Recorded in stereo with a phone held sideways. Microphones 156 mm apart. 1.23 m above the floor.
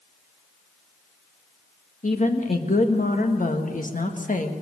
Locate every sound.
2.0 s a woman speaking: 55° left (ahead or behind), 1.8 m